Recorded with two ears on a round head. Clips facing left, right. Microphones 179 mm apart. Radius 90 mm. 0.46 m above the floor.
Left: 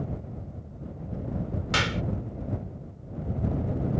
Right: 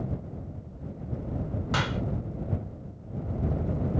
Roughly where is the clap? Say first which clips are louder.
Left 1 dB; left.